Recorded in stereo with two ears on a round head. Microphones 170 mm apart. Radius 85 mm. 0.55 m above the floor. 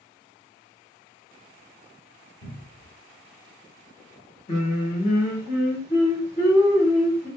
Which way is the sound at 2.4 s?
35° left (ahead or behind).